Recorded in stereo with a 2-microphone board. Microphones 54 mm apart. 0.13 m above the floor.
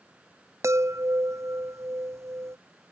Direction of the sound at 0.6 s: 65° right (ahead or behind).